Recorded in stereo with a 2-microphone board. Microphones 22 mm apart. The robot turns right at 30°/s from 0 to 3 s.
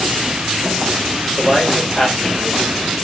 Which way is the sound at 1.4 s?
150° left.